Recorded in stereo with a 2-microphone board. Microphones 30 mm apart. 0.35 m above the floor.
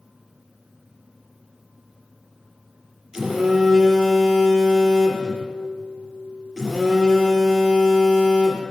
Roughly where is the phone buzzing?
Right.